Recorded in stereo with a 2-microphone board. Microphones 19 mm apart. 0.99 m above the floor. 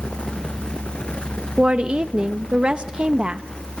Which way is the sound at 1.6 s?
60° right (ahead or behind).